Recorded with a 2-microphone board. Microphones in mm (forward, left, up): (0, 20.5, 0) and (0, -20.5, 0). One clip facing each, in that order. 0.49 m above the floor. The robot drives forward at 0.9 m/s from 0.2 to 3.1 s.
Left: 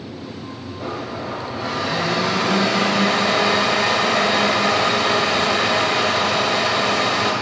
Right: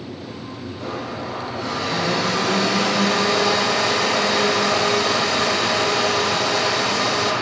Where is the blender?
10° left (ahead or behind), 3 m; by 7.3 s 30° left (ahead or behind), 1.3 m.